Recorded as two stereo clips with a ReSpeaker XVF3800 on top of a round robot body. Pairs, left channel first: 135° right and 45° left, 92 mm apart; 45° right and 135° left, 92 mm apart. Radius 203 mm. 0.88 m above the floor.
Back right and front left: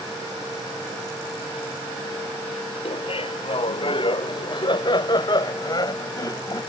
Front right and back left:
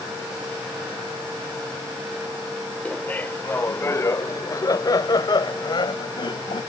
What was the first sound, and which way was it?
Laughter, 120° right.